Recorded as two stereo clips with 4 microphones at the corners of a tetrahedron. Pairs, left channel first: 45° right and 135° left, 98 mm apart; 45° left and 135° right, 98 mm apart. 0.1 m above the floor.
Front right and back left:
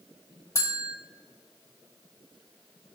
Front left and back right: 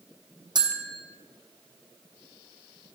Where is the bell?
95° right, 1.2 m.